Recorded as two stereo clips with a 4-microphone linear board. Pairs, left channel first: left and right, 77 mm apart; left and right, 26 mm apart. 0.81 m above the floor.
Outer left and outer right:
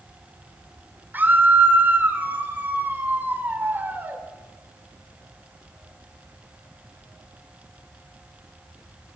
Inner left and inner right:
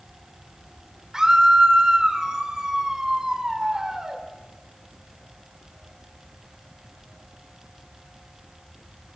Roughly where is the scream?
Right.